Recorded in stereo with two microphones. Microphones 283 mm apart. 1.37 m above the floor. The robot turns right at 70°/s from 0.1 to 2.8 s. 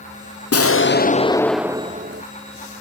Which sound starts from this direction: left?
An explosion, at 0.5 s.